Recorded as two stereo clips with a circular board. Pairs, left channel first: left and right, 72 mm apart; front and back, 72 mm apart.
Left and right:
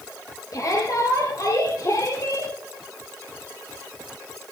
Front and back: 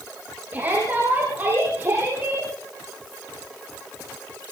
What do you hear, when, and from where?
0.5 s a shout: 115° left, 5.5 m; by 2.5 s 120° left, 6.5 m